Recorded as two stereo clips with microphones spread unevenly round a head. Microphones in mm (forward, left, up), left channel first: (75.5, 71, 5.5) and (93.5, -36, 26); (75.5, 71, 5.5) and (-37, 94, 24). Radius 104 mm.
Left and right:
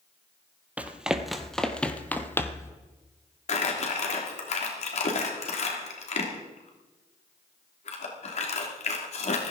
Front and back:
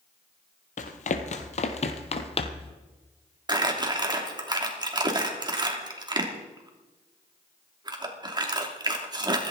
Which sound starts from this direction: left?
Crumpling, at 3.5 s.